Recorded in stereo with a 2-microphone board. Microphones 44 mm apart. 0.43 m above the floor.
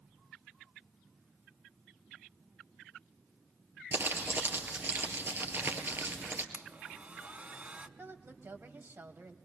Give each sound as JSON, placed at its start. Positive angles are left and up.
{"t": 3.9, "sound": "crumpling", "side_deg": -55, "distance_m": 2.5}
{"t": 6.5, "sound": "a blender", "side_deg": -35, "distance_m": 1.0}
{"t": 8.0, "sound": "a woman speaking", "side_deg": -55, "distance_m": 1.8}